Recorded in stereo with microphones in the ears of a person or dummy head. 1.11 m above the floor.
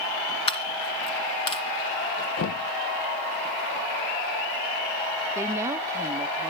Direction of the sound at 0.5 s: 30° left (ahead or behind).